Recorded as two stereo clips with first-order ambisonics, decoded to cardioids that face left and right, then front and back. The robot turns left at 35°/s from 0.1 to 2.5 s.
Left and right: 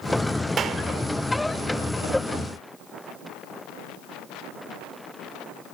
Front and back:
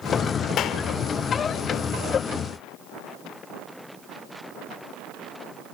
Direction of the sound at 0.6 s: 35° right.